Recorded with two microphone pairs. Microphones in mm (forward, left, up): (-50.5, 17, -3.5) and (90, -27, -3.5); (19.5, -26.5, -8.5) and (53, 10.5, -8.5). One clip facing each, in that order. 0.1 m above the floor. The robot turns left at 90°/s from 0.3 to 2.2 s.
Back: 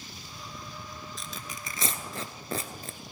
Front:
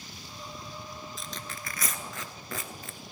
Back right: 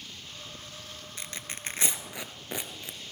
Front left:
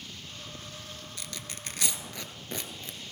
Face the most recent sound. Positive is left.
turn(degrees=170)